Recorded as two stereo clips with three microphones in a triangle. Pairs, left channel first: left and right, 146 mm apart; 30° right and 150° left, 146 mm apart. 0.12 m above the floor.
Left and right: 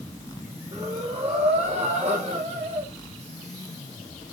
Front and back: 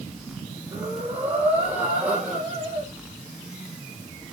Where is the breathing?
130° right, 5.5 m.